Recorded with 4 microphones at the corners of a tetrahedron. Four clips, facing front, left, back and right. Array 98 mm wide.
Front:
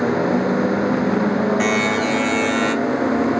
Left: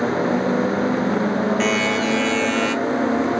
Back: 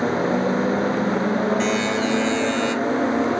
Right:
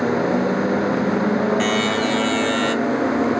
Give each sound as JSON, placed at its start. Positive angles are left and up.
{"t": 1.6, "sound": "a buzzer", "azimuth_deg": -15, "distance_m": 0.9}